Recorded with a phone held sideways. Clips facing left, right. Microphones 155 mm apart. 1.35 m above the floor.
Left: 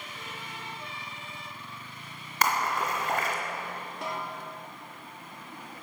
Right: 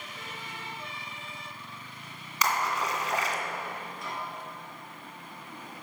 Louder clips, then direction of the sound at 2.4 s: Left 1 dB; 55° left (ahead or behind).